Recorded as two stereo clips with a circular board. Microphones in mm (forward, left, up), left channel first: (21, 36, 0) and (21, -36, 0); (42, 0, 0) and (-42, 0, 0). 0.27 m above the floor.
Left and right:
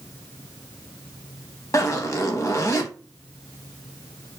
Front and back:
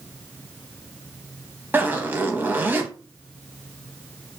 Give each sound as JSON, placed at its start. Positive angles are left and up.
{"t": 1.7, "sound": "a zipper", "azimuth_deg": 120, "distance_m": 0.6}